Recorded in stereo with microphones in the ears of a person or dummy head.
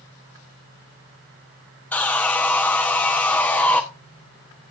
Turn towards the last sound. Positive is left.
turn(degrees=10)  # may be behind; listen again after turning